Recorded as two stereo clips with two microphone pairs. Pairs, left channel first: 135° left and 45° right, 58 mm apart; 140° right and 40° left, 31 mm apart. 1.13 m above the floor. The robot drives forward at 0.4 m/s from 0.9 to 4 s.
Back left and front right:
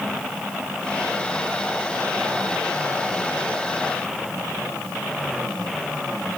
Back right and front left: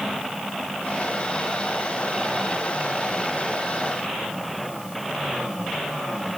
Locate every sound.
Only background noise.